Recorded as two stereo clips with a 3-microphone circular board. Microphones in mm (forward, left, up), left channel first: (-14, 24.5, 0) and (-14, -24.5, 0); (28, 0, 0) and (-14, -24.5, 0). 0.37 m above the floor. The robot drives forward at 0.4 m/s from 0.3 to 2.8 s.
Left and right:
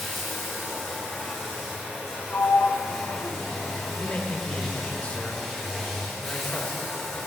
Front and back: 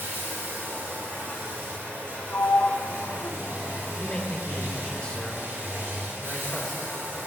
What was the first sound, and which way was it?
Running water, 175° right.